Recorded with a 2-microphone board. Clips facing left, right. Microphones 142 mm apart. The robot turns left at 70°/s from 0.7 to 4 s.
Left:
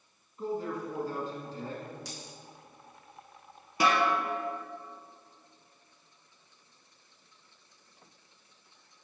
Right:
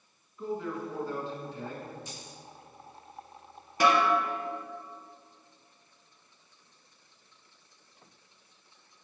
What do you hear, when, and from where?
0.4 s a man speaking: 120° left, 1.6 m; by 1.9 s 30° left, 1.6 m
2.0 s a dropped coin: 85° left, 1.8 m; by 2.4 s 65° left (ahead or behind), 1.8 m
3.8 s a snare drum: 10° left (ahead or behind), 2 m; by 4.1 s 25° left (ahead or behind), 2 m